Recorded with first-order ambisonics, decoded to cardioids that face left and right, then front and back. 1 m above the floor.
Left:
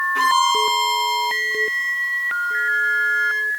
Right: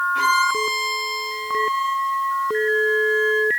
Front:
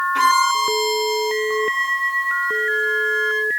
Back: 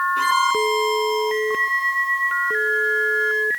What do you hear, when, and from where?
0.1 s a violin: 10° left, 4 m